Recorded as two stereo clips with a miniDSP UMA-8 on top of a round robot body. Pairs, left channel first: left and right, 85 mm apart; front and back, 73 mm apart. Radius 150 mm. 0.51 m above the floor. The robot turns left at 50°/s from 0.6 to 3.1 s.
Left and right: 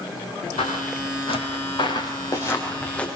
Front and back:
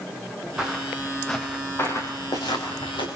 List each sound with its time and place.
0.6 s footsteps: 100° left, 5 m; by 3.1 s 10° left, 6.5 m